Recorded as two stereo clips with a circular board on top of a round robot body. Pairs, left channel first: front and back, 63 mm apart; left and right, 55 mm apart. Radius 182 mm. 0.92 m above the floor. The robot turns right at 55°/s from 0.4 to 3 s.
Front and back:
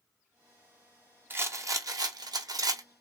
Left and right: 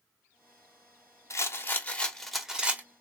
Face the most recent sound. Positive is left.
turn(degrees=-145)